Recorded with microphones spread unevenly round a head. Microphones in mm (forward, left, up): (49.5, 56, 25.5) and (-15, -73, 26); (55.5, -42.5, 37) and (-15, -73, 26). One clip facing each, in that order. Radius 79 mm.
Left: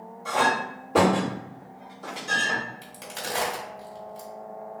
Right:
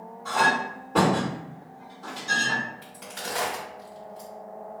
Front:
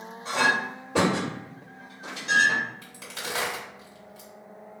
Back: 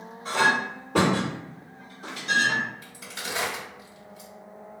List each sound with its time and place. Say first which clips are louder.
0.2 s a clink: even, back 1 dB; 130° left, 1.8 m
2.8 s a crack: left 1 dB, even; 50° left, 1.5 m